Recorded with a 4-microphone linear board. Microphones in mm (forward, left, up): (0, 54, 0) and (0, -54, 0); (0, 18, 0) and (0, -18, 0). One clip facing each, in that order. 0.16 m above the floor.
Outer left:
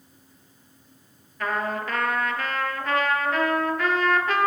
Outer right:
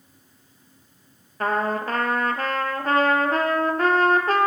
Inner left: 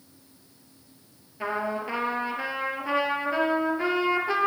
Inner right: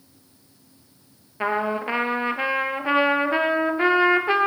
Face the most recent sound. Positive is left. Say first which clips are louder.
# outer right 4 dB, inner right 5 dB
turn(degrees=-40)  # may be behind; listen again after turning